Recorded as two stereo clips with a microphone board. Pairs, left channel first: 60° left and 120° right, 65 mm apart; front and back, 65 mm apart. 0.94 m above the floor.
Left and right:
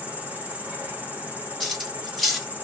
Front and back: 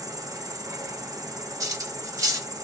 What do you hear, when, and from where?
0.0 s an insect: 175° left, 0.9 m
1.6 s cutlery clinking: 150° left, 0.9 m